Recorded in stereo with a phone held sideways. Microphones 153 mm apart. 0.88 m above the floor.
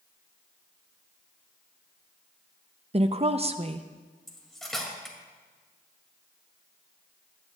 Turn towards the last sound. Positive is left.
turn(degrees=0)  # may be behind; listen again after turning